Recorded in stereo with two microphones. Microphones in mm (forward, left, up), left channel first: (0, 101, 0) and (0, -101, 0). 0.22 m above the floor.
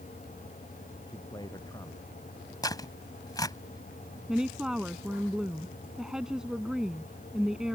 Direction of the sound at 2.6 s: 20° left (ahead or behind).